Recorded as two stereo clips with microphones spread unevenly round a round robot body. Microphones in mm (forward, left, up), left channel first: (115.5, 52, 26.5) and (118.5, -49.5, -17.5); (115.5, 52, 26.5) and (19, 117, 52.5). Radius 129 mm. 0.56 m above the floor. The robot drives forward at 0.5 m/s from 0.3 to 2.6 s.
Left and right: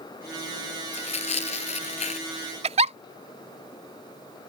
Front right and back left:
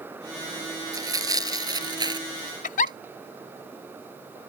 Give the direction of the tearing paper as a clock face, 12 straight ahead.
9 o'clock.